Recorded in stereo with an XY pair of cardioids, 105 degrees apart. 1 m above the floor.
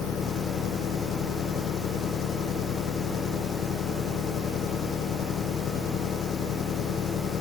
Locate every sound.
0.0 s an engine running: 65° left